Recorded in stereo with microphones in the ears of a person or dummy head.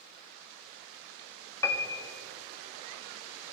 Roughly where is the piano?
Centre.